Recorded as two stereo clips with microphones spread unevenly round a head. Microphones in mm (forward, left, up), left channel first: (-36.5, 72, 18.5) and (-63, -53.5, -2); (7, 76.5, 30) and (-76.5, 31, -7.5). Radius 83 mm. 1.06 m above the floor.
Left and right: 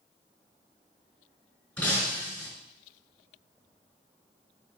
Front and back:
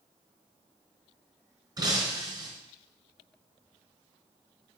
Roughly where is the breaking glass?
Behind left.